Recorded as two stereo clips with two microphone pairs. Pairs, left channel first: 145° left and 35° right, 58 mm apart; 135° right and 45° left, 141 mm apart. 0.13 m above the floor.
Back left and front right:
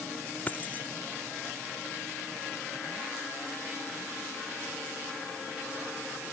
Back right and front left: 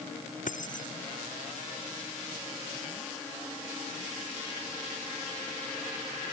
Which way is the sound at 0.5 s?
155° right.